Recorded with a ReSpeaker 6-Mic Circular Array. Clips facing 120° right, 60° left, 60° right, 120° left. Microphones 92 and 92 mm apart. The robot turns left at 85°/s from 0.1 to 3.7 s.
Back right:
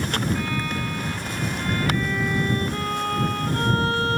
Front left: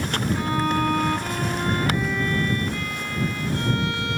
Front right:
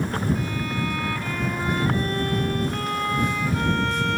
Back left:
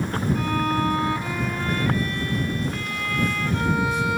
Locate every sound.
0.3 s a violin: 125° left; by 4.2 s 160° right